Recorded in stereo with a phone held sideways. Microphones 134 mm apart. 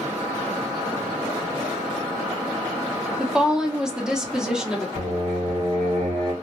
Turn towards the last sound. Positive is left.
turn(degrees=-65)  # may be behind; listen again after turning